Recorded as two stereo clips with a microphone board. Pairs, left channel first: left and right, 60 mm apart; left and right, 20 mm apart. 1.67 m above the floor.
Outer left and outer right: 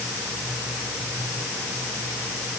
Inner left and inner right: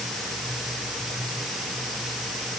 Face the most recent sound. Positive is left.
No sound to turn to.